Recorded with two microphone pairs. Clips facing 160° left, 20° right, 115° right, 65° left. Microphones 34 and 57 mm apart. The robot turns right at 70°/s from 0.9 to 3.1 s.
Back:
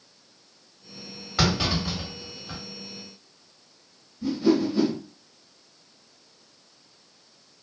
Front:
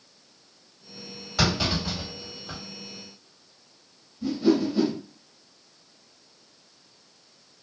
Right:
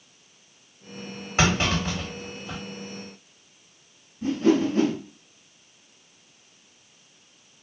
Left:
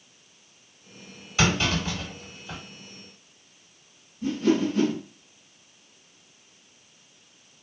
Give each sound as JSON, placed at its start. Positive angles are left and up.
{"t": 1.4, "sound": "a clunk", "azimuth_deg": -145, "distance_m": 1.8}
{"t": 4.2, "sound": "a whoosh", "azimuth_deg": -95, "distance_m": 0.9}